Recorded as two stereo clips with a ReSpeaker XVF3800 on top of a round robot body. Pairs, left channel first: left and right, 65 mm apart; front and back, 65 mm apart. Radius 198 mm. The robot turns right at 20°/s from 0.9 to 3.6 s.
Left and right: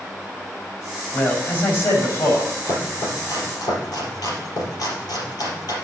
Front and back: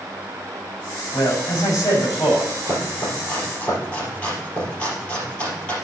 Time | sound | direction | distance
1.1 | a man speaking | 25° left | 5 m
2.6 | chopping | 55° left | 4 m